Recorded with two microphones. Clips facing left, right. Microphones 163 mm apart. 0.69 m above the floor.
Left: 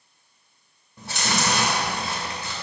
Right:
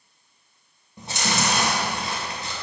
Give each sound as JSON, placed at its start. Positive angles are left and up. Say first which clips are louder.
{"t": 1.0, "sound": "chewing", "louder": "right 1 dB", "side_deg": -20, "distance_m": 2.0}